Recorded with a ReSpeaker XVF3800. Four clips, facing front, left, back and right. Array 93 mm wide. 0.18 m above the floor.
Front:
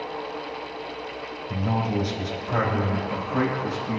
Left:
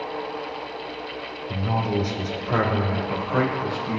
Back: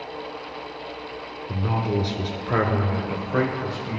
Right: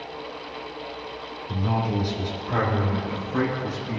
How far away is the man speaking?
About 3 m.